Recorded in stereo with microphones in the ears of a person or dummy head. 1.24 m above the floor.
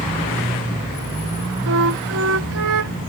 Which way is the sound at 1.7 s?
75° right (ahead or behind).